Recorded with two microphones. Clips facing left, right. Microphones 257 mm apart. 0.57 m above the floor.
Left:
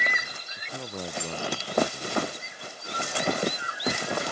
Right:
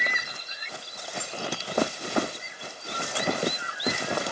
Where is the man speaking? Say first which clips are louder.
Left 12 dB; 75° left (ahead or behind).